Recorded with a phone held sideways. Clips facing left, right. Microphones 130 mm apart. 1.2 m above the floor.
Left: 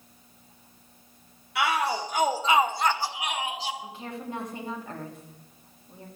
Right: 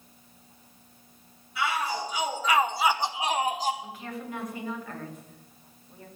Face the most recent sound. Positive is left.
turn(degrees=25)  # may be behind; listen again after turning